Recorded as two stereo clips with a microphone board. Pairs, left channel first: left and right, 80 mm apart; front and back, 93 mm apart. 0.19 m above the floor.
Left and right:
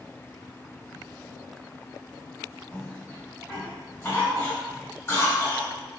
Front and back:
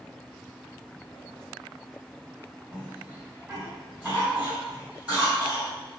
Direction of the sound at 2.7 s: 125° left.